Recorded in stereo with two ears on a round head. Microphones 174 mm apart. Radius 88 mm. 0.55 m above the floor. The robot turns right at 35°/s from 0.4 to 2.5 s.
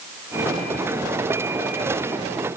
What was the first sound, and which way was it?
Only background noise.